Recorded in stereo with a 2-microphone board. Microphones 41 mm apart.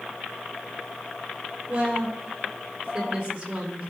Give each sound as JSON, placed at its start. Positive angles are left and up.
{"t": 1.7, "sound": "a woman speaking", "side_deg": -25, "distance_m": 4.0}